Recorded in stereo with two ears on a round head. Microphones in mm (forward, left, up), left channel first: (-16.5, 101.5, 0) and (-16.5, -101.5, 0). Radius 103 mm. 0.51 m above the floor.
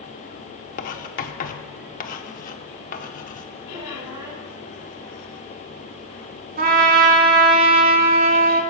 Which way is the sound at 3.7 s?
45° right (ahead or behind).